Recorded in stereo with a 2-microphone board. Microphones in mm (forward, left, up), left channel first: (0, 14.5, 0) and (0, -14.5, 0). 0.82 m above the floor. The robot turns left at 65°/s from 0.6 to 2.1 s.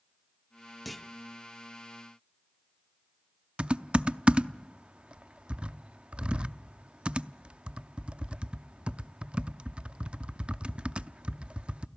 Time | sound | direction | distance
0.8 | a clunk | centre (ahead or behind) | 0.7 m
3.6 | typing on a keyboard | 45° right (ahead or behind) | 0.5 m